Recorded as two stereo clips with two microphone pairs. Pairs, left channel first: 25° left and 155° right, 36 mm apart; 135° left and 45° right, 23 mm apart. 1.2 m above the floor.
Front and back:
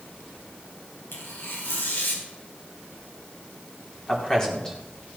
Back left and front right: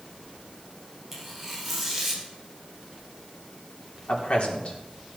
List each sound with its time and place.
1.1 s tearing paper: 40° left, 4 m
4.1 s a man speaking: 100° left, 4.5 m